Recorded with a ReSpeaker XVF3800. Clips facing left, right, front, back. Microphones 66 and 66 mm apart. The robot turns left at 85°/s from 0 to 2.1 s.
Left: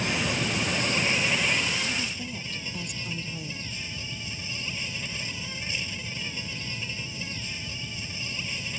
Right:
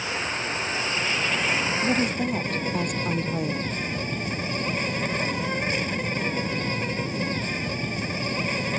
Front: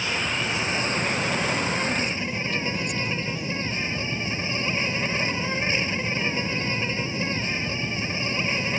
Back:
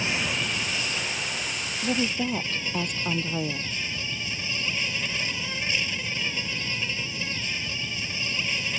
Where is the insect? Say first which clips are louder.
Left 1 dB, front 1 dB; 120° left; by 8.8 s 55° right.